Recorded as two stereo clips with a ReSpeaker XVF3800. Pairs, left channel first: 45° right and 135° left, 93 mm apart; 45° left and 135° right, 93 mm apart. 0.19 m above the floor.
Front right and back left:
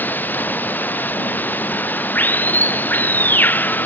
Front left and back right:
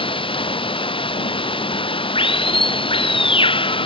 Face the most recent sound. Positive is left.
turn(degrees=25)